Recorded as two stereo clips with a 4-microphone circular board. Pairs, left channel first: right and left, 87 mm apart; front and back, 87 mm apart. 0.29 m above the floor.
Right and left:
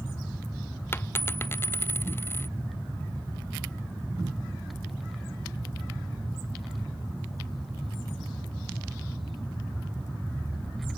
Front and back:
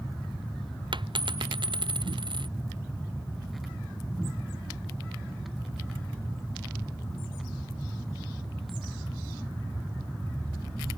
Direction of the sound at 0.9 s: 155° right.